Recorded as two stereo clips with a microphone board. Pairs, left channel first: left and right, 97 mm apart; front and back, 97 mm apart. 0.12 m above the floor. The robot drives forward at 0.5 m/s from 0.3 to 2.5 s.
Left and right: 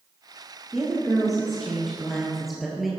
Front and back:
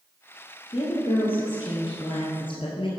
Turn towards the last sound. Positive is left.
turn(degrees=-5)